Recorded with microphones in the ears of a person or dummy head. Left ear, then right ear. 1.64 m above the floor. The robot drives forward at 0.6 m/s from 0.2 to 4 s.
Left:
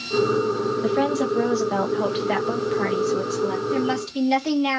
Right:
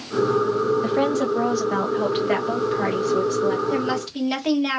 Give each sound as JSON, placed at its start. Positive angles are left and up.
{"t": 0.8, "sound": "a woman speaking", "side_deg": 0, "distance_m": 0.6}
{"t": 3.7, "sound": "a woman speaking", "side_deg": -15, "distance_m": 1.9}